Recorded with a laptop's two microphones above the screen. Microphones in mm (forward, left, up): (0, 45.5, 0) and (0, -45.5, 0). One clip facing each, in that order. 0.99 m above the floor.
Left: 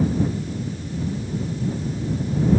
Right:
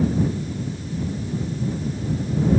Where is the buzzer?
No buzzer in this recording.